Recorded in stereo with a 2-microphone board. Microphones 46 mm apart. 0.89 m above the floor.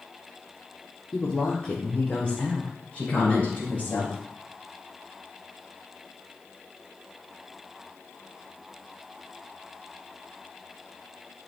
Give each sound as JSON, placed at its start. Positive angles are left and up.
{"t": 1.1, "sound": "a woman speaking", "side_deg": 30, "distance_m": 1.7}